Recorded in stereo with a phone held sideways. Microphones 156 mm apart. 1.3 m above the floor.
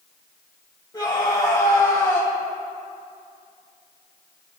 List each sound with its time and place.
0.9 s a scream: 25° left (ahead or behind), 4.5 m; by 2.3 s 15° left (ahead or behind), 4.5 m